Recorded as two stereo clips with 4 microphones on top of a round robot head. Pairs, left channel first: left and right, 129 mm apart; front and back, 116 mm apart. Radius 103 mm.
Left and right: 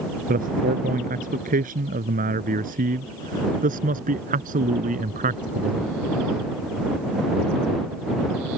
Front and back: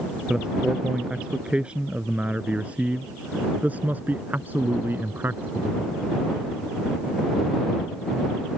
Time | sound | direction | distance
0.3 | a man speaking | 95° right | ?